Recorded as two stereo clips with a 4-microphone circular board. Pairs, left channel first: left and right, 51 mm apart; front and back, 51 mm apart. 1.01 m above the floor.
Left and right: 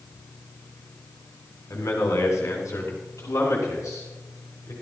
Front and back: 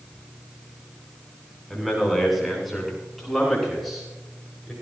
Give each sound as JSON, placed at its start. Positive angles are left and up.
{"t": 1.7, "sound": "a man speaking", "azimuth_deg": 90, "distance_m": 7.5}